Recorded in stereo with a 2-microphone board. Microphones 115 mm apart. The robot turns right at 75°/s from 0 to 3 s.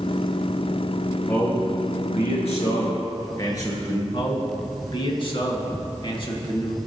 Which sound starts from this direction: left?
A man speaking, at 4.1 s.